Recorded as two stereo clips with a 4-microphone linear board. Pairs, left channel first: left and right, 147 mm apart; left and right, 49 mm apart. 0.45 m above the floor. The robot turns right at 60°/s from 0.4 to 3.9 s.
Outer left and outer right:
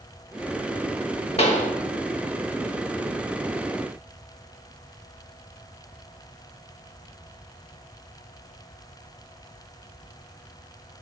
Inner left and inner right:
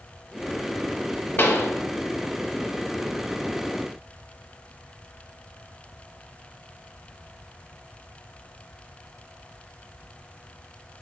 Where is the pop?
45° left (ahead or behind), 0.6 m; by 1.7 s 65° left (ahead or behind), 0.6 m.